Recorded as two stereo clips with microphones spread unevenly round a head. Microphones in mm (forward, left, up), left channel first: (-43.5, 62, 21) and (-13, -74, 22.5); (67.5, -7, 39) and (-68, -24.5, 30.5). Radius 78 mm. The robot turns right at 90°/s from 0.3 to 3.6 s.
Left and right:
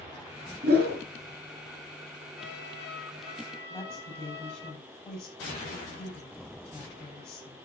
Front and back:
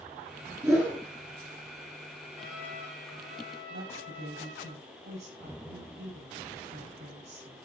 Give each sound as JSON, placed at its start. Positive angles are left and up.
{"t": 0.6, "sound": "a whoosh", "azimuth_deg": -95, "distance_m": 5.0}
{"t": 2.4, "sound": "a trumpet", "azimuth_deg": 60, "distance_m": 4.5}
{"t": 3.7, "sound": "a woman speaking", "azimuth_deg": -170, "distance_m": 8.5}